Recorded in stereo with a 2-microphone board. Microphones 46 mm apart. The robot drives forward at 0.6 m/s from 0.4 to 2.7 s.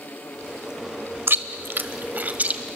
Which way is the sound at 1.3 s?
60° right (ahead or behind).